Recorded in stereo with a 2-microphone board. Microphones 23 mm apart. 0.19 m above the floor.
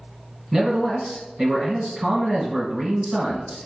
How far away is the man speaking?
About 1.9 m.